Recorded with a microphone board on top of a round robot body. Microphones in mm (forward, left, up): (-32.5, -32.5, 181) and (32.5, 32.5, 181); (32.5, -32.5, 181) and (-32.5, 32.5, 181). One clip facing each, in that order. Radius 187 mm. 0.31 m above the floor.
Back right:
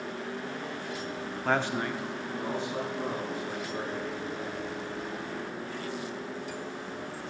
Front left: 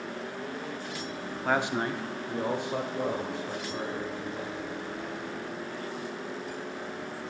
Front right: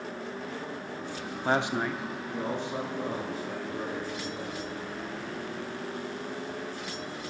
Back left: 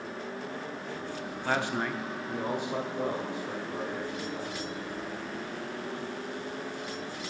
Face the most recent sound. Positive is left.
turn(degrees=65)